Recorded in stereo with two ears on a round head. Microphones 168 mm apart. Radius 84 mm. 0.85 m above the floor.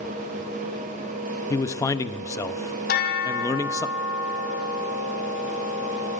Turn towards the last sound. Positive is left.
turn(degrees=55)  # may be behind; listen again after turning